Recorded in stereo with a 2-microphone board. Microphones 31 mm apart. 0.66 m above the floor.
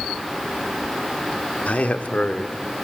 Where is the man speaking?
50° left (ahead or behind), 1.3 m; by 2.8 s 25° left (ahead or behind), 2 m.